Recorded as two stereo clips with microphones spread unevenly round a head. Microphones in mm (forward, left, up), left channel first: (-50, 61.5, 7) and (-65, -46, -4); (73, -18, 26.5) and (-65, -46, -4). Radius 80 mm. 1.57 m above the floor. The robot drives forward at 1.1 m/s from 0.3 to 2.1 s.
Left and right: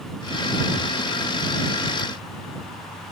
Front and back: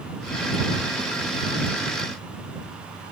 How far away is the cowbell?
No cowbell in this recording.